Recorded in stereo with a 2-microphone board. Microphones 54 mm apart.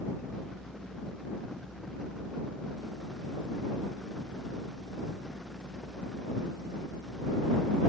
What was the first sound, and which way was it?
Only background noise.